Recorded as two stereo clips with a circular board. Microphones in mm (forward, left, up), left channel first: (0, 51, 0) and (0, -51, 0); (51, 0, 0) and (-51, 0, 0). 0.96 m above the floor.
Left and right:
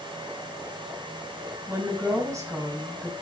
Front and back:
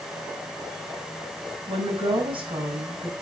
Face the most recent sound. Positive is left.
turn(degrees=-150)